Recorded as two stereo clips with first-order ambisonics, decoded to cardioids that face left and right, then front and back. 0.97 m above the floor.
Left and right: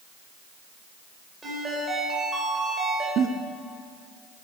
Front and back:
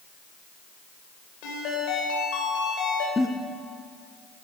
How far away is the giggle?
About 0.6 m.